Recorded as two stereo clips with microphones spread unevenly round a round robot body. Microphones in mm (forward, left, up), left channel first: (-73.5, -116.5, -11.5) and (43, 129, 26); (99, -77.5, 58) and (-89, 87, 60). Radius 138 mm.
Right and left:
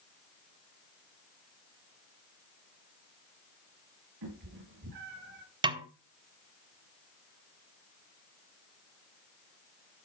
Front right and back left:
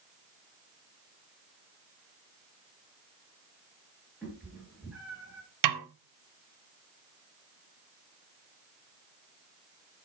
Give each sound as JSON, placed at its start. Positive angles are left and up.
{"t": 4.2, "sound": "a cat meowing", "azimuth_deg": 55, "distance_m": 5.0}
{"t": 5.6, "sound": "a snare drum", "azimuth_deg": 140, "distance_m": 0.9}